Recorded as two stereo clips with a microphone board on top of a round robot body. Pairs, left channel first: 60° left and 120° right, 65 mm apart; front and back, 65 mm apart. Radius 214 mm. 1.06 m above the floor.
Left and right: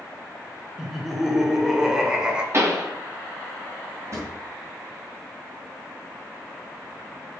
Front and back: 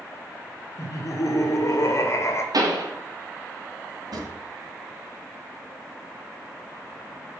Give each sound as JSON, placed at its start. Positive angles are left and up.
{"t": 0.8, "sound": "laughter", "azimuth_deg": -30, "distance_m": 2.5}
{"t": 2.5, "sound": "a pop", "azimuth_deg": -170, "distance_m": 3.5}
{"t": 4.1, "sound": "a drawer", "azimuth_deg": -165, "distance_m": 3.5}